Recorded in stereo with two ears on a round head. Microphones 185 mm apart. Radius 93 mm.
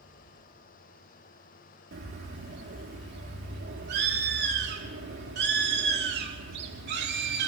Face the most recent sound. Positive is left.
turn(degrees=-55)  # may be behind; listen again after turning